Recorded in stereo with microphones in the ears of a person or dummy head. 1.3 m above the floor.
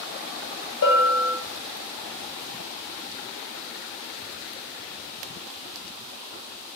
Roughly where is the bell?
Left.